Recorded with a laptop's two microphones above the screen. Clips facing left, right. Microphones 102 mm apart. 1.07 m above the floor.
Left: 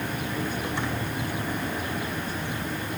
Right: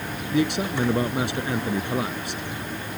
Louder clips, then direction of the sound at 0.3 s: Right 11 dB; 85° right.